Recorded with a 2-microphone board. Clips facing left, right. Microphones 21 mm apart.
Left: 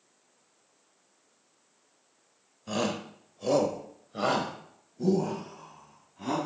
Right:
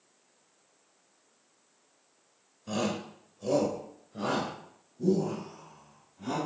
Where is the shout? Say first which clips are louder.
Left 1 dB; 10° left (ahead or behind), 1.1 m; by 6.4 s 60° left (ahead or behind), 2.5 m.